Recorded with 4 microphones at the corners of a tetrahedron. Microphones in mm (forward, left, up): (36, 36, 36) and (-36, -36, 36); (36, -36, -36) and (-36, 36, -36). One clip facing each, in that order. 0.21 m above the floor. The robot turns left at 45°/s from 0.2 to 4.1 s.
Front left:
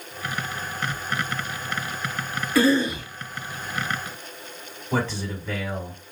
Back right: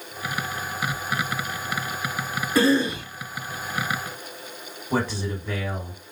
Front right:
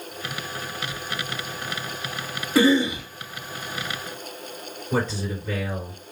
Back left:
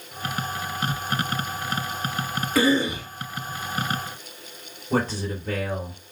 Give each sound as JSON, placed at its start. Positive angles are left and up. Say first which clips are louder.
{"t": 2.5, "sound": "a cough", "louder": "even, front right 3 dB", "azimuth_deg": -85, "distance_m": 2.0}
{"t": 4.9, "sound": "a man speaking", "louder": "back right 1 dB, back left 1 dB", "azimuth_deg": 155, "distance_m": 2.5}